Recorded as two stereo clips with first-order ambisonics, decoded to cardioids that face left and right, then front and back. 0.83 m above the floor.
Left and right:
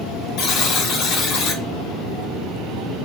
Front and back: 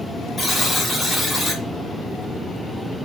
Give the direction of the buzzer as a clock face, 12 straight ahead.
9 o'clock.